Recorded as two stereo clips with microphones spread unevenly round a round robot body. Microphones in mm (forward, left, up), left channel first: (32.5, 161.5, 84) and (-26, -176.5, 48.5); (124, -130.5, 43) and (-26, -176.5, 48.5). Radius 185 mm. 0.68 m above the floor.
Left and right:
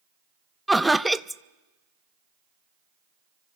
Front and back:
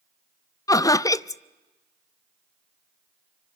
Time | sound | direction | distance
0.7 | laughter | 20° right | 0.6 m